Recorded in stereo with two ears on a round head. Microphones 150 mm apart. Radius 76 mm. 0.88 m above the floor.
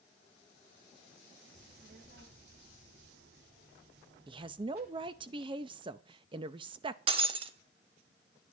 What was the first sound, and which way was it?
A child speaking, 60° right (ahead or behind).